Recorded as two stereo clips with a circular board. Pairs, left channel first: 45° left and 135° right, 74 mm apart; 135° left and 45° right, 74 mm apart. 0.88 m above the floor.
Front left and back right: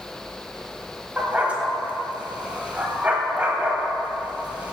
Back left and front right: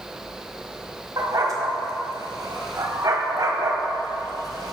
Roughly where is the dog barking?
Ahead right.